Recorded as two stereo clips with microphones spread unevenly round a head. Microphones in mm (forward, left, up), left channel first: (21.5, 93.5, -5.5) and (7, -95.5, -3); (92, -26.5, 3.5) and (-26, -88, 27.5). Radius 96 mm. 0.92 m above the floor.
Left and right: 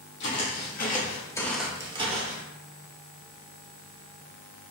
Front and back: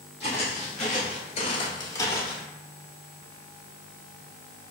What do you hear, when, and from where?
0.2 s footsteps: 90° left, 1.9 m; by 2.4 s 55° right, 1.7 m